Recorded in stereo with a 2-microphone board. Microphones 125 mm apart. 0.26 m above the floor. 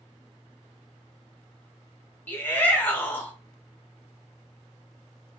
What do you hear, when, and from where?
2.3 s a shout: 15° left (ahead or behind), 1.0 m